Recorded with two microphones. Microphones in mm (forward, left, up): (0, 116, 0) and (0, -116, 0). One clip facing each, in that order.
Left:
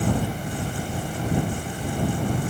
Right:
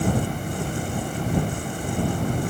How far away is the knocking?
I don't hear knocking.